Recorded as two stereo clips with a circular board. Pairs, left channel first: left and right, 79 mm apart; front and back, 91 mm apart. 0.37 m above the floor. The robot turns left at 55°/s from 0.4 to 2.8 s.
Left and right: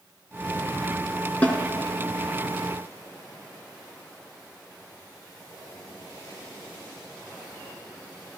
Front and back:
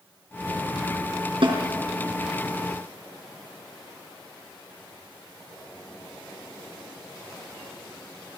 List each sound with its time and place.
1.4 s a snare drum: 160° left, 4.5 m; by 1.6 s 155° left, 4.5 m